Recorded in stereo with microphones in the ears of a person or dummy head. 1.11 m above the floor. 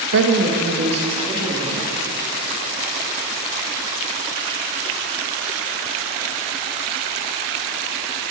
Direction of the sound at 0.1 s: 70° right (ahead or behind).